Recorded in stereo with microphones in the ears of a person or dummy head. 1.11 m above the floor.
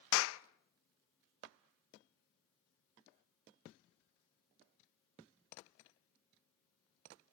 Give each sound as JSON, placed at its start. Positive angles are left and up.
{"t": 0.1, "sound": "a clap", "side_deg": 65, "distance_m": 0.6}